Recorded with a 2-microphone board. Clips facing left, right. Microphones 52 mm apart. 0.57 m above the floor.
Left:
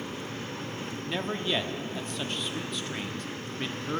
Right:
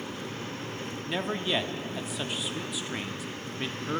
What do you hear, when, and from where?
1.1 s a man speaking: 5° right (ahead or behind), 0.7 m